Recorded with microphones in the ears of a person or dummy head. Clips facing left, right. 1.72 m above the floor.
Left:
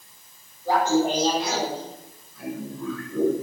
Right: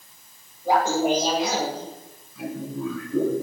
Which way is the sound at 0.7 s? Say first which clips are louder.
Even; 10° right (ahead or behind).